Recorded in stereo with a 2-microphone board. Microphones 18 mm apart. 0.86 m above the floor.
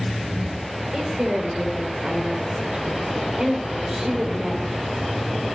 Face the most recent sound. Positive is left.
turn(degrees=-70)  # may be behind; listen again after turning